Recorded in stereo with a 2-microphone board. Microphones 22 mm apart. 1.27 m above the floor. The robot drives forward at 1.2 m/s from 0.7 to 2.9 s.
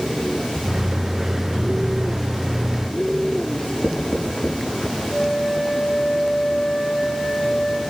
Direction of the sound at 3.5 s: 75° left (ahead or behind).